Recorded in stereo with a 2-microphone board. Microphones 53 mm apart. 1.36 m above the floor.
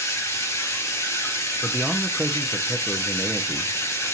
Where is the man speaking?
5° right (ahead or behind), 0.6 m.